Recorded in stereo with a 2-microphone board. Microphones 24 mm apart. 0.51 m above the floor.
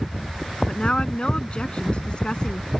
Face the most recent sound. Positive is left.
turn(degrees=35)  # may be behind; listen again after turning